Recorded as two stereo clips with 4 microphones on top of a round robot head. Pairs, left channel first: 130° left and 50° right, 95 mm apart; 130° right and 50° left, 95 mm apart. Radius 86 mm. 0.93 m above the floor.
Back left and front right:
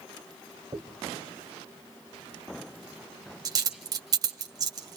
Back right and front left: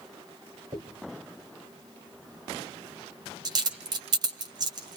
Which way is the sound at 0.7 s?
Straight ahead.